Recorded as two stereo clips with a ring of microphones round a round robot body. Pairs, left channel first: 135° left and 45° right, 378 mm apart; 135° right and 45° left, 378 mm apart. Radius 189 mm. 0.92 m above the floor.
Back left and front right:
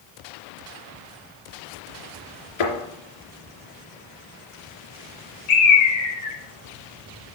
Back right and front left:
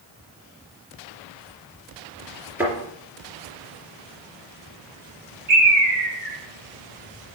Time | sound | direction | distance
2.6 | a thud | 130° left | 3 m
5.5 | a bird | 105° left | 4 m